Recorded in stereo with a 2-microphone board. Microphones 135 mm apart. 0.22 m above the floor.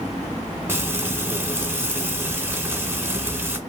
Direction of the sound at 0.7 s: 20° right (ahead or behind).